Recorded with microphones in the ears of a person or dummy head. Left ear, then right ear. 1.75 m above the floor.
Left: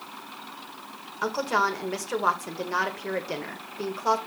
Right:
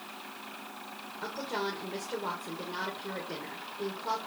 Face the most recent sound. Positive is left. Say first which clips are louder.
# left 10 dB
turn(degrees=50)  # may be behind; listen again after turning